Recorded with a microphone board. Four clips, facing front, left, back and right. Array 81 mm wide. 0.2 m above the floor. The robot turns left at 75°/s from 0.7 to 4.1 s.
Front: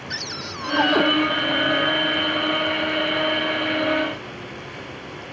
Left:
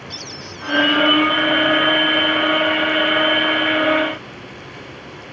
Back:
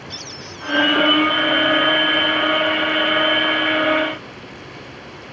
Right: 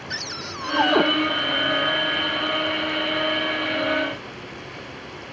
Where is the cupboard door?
50° right; by 1.0 s 75° right.